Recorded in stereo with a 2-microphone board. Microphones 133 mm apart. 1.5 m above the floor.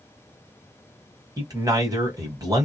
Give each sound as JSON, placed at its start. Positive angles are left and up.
{"t": 1.4, "sound": "a man speaking", "side_deg": -25, "distance_m": 1.2}